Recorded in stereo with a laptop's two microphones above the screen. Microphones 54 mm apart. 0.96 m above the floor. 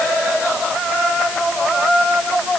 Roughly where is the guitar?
No guitar in this recording.